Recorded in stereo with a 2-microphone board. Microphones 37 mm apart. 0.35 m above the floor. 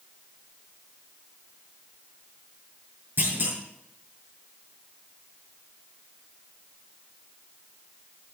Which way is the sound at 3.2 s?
75° right (ahead or behind).